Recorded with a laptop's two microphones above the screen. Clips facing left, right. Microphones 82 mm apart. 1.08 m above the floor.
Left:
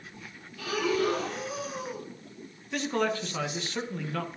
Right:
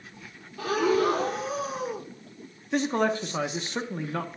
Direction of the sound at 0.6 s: 40° right (ahead or behind).